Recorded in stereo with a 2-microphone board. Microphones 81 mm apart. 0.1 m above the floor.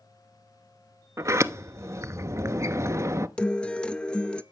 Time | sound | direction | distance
1.2 | a sliding door | 35° right (ahead or behind) | 0.7 m
3.4 | a guitar | 10° left (ahead or behind) | 0.7 m